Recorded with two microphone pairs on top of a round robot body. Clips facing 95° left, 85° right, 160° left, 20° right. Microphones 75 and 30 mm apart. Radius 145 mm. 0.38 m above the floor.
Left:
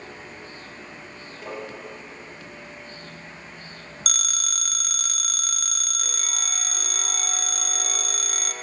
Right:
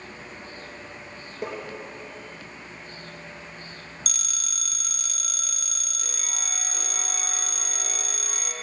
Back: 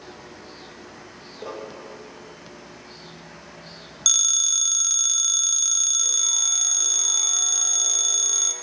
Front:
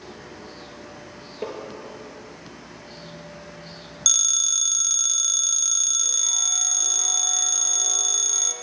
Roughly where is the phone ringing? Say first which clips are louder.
Left 7 dB, back 1 dB; left.